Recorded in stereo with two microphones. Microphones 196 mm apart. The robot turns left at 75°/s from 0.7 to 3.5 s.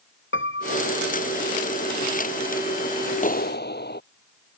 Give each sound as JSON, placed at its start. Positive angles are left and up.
{"t": 0.3, "sound": "a piano", "azimuth_deg": 95}
{"t": 3.2, "sound": "a clap", "side_deg": 40}